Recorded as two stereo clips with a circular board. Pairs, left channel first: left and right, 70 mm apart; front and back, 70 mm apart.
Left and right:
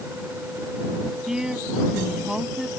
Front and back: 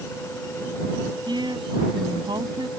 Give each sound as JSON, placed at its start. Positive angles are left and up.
{"t": 1.3, "sound": "a woman speaking", "azimuth_deg": -170}